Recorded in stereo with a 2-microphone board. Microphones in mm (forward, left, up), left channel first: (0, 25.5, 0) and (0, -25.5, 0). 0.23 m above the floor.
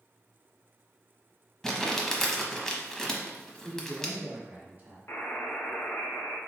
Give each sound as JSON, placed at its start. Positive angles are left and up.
{"t": 1.6, "sound": "crumpling", "side_deg": 10, "distance_m": 0.7}
{"t": 3.6, "sound": "a man speaking", "side_deg": -35, "distance_m": 1.5}
{"t": 5.1, "sound": "a buzzer", "side_deg": 50, "distance_m": 0.9}